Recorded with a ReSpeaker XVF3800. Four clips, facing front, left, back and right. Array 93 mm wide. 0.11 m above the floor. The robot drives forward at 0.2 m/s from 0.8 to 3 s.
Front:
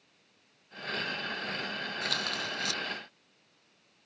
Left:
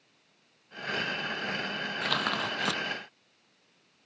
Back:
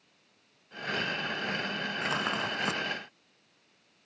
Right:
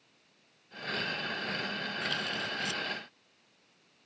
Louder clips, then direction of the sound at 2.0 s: Left 8 dB, back 5 dB; 120° left.